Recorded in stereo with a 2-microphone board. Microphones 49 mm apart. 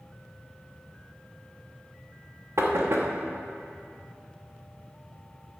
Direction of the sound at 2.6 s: 70° right (ahead or behind).